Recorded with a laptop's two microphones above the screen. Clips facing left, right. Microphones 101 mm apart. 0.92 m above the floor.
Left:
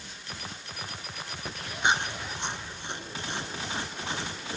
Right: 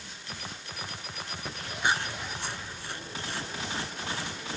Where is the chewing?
20° left (ahead or behind).